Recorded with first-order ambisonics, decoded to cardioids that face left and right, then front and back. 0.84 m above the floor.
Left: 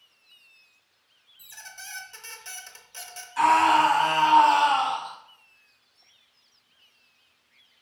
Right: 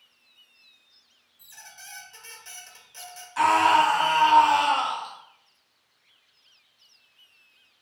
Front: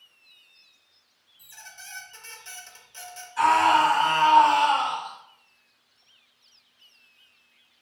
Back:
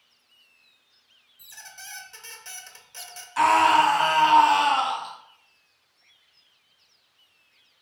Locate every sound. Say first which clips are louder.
1.4 s a squeak: left 3 dB, back 1 dB; 135° left, 0.5 m
3.4 s a scream: even, back 1 dB; 160° right, 1.5 m